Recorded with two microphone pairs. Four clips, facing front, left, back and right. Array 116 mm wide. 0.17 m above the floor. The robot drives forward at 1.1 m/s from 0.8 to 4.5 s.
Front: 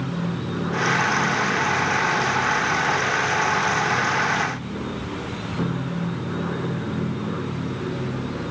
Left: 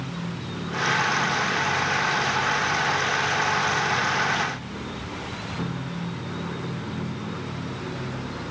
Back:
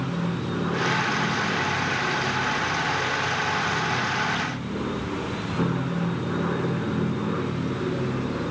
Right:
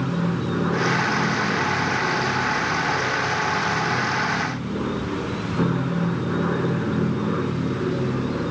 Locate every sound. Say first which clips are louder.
0.0 s an aircraft: right 9 dB, front 1 dB; 95° right; by 8.5 s 105° right